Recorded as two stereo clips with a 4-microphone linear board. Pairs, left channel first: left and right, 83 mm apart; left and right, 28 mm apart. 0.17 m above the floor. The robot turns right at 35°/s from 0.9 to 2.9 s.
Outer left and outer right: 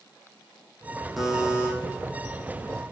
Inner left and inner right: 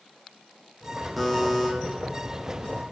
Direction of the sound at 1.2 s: Centre (ahead or behind).